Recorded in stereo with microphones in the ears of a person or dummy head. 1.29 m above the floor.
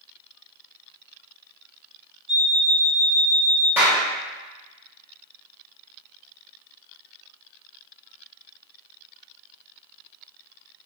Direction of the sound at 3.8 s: 5° right (ahead or behind).